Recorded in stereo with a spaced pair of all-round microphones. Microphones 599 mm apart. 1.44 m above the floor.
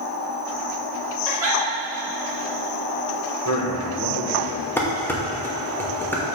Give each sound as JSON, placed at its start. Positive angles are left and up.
{"t": 1.2, "sound": "a giggle", "side_deg": 50, "distance_m": 2.5}
{"t": 3.5, "sound": "a man speaking", "side_deg": 25, "distance_m": 1.5}
{"t": 4.8, "sound": "dishes clattering", "side_deg": 5, "distance_m": 1.0}